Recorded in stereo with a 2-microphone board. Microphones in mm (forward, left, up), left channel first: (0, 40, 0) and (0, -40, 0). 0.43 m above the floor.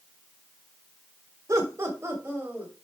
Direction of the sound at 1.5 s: 40° right (ahead or behind).